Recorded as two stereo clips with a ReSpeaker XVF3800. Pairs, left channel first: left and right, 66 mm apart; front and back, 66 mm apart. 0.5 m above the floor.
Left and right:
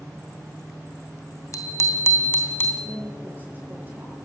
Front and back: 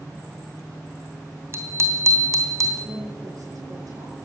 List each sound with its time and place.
1.5 s a bicycle bell: 130° left, 2.5 m; by 2.7 s 145° left, 3 m
2.8 s a woman speaking: 150° right, 10 m